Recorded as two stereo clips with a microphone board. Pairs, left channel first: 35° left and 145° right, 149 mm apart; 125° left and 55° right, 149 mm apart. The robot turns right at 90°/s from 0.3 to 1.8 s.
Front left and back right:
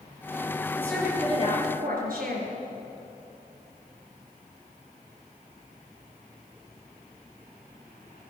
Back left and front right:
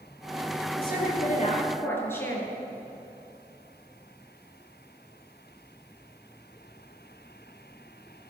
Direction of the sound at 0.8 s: 105° left.